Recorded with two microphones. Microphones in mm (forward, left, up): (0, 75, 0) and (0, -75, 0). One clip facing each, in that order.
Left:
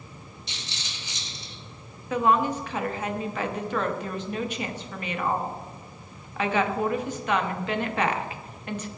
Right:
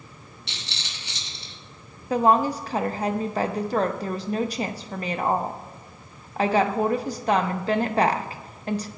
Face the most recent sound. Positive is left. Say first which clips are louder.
# right 3 dB
turn(degrees=-35)  # may be behind; listen again after turning